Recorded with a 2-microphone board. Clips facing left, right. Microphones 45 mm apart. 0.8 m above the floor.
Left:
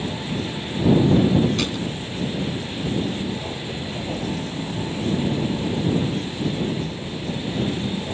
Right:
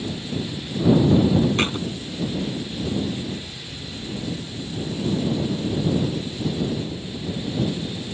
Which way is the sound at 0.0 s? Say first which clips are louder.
Left 2 dB; 60° left (ahead or behind).